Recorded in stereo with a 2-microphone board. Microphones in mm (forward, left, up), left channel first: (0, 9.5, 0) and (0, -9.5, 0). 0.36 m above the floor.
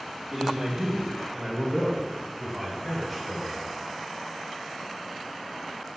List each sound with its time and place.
0.3 s a man speaking: 25° right (ahead or behind), 1.6 m; by 3.6 s centre (ahead or behind), 1.8 m